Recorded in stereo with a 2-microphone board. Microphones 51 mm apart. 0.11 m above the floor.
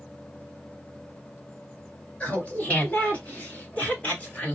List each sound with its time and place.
2.2 s laughter: 25° left (ahead or behind), 2.5 m